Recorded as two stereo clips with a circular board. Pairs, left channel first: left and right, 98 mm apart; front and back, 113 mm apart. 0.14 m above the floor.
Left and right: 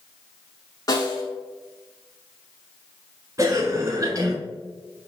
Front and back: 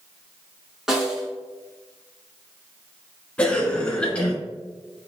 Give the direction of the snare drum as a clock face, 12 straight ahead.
9 o'clock.